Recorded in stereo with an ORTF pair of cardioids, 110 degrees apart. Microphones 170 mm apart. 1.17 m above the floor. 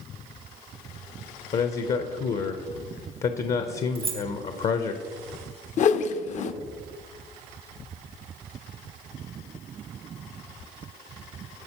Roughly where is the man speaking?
Ahead left.